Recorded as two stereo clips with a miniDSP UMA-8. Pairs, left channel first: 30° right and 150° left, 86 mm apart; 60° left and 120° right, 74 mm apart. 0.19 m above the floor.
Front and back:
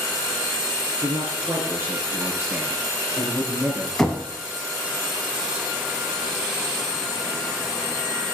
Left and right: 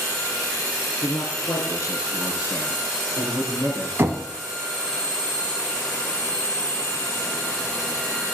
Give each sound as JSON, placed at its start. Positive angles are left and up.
{"t": 1.0, "sound": "a man speaking", "azimuth_deg": 90, "distance_m": 3.0}
{"t": 4.0, "sound": "knocking", "azimuth_deg": -110, "distance_m": 1.5}